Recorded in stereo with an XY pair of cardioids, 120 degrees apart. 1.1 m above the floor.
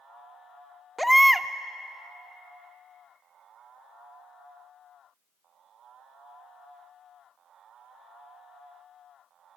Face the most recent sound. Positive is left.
turn(degrees=0)